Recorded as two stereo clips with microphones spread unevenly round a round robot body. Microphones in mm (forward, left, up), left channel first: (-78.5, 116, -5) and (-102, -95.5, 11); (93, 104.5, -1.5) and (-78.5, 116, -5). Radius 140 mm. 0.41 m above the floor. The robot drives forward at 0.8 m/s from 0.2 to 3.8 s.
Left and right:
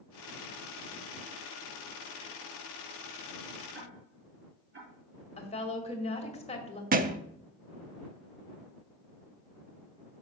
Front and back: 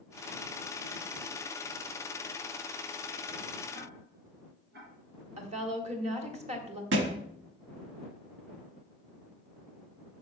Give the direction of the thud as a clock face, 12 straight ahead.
5 o'clock.